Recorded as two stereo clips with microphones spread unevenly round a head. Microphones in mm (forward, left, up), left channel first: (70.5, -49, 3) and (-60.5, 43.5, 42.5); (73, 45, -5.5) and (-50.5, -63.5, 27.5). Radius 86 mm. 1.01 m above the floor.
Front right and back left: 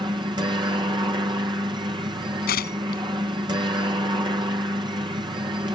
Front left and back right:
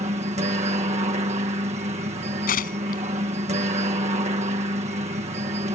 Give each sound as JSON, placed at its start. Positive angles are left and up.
{"t": 0.0, "sound": "a helicopter", "azimuth_deg": -155}
{"t": 2.5, "sound": "tearing paper", "azimuth_deg": 0}